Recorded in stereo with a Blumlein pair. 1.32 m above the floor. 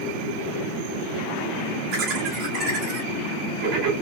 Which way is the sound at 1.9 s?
35° right.